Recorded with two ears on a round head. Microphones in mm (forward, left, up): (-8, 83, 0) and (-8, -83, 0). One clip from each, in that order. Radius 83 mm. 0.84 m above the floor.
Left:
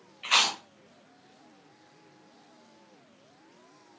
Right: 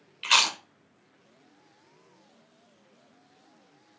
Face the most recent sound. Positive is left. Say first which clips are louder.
# right 2 dB
turn(degrees=-65)  # may be behind; listen again after turning